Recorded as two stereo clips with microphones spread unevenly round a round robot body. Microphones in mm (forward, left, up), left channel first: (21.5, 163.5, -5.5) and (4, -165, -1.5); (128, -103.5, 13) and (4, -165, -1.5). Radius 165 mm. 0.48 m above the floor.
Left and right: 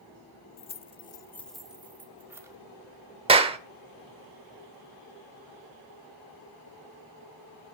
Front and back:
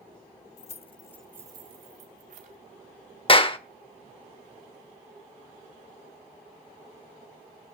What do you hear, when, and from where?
0.6 s keys jangling: 20° left, 1.1 m; by 2.6 s 175° right, 2 m
3.3 s a clap: 20° right, 1.3 m